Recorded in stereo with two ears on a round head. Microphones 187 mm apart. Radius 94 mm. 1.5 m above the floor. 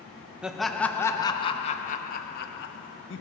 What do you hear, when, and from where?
0.4 s laughter: 5° right (ahead or behind), 1.1 m; by 3.2 s 60° left (ahead or behind), 1.5 m